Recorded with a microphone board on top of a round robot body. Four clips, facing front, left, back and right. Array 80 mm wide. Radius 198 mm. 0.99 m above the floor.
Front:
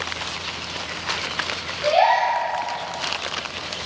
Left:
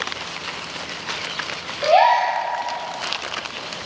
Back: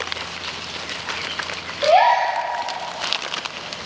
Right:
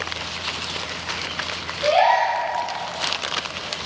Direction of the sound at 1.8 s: 155° left.